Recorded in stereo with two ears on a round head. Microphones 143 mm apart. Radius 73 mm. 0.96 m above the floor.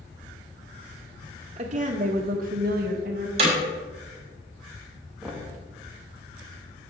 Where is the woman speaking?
40° right (ahead or behind), 1.1 m; by 3.3 s 55° right (ahead or behind), 1.2 m.